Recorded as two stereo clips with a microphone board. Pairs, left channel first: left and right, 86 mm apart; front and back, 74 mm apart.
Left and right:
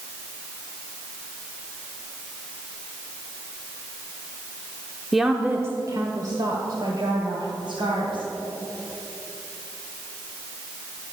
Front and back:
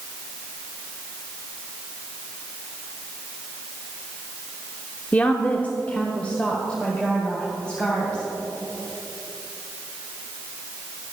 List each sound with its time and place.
5.1 s a woman speaking: 5° left, 0.9 m; by 8.2 s 75° right, 3.5 m